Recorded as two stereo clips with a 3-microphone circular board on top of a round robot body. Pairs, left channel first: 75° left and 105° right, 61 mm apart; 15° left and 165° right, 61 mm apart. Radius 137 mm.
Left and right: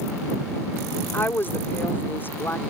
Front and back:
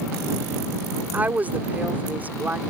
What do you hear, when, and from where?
1.1 s a woman speaking: 130° left